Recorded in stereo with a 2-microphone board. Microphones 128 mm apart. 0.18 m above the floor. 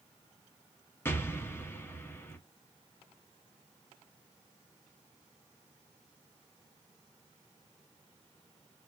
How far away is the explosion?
About 0.5 m.